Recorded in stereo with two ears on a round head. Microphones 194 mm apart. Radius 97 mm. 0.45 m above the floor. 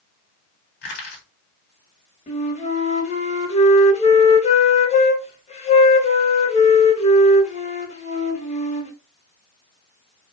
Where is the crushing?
50° left (ahead or behind), 1.6 m.